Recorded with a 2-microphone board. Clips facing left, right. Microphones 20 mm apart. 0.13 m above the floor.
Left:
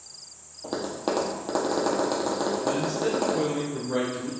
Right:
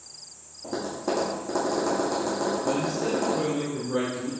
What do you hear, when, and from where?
0.6 s tapping: 65° left (ahead or behind), 2 m
2.6 s a man speaking: 35° left (ahead or behind), 2 m